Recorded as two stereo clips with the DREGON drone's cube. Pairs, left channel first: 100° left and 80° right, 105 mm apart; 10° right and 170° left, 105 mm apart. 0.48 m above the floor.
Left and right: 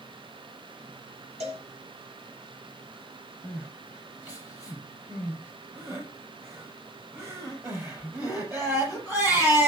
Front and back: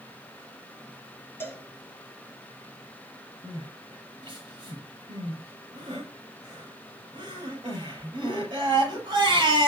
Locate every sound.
1.4 s a cowbell: 80° right, 4 m
3.4 s crying: 145° right, 7.5 m